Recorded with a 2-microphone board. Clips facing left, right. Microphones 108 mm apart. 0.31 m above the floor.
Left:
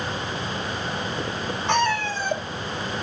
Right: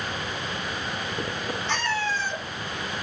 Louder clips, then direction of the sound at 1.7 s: Left 6 dB; 85° left.